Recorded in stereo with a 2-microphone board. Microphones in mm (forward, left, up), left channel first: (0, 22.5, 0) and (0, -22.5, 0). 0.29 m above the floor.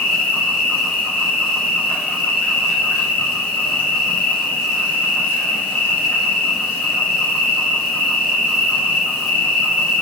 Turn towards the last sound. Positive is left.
turn(degrees=40)  # may be behind; listen again after turning